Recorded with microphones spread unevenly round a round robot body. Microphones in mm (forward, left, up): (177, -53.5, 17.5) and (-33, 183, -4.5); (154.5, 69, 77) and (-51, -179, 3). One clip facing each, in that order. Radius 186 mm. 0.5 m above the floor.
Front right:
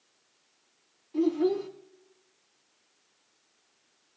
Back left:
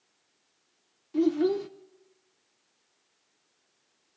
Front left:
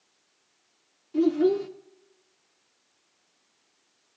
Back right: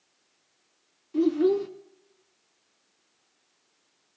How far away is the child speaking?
About 0.5 m.